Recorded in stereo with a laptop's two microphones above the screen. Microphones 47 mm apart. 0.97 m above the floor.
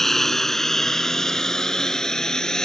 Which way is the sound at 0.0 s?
5° left (ahead or behind).